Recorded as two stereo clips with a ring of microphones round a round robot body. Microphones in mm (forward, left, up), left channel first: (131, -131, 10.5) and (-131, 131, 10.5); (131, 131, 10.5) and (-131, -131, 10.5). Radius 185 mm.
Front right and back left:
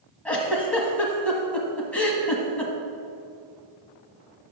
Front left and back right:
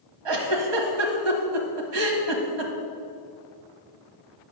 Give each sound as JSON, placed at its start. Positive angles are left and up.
{"t": 0.2, "sound": "a giggle", "azimuth_deg": -130, "distance_m": 1.4}